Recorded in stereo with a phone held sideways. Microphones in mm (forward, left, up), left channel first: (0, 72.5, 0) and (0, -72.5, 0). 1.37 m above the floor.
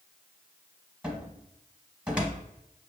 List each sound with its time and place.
1.0 s a cupboard door: 5° right (ahead or behind), 0.7 m